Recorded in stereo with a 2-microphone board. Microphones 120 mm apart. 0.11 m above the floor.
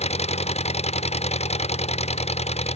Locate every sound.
0.0 s an engine running: 60° left (ahead or behind)